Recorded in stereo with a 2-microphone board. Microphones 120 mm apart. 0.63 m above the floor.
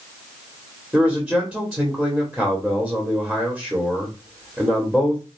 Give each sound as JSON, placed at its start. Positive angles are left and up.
{"t": 0.9, "sound": "a man speaking", "side_deg": 0, "distance_m": 1.6}